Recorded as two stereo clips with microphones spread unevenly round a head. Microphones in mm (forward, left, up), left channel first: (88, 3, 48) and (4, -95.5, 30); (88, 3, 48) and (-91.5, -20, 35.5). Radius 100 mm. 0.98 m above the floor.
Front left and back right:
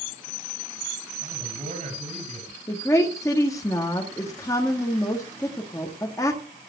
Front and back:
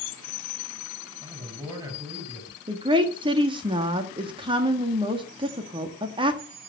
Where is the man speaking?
105° right, 9 m.